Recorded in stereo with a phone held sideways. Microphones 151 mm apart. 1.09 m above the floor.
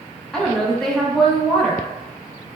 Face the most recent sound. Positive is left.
turn(degrees=5)  # may be behind; listen again after turning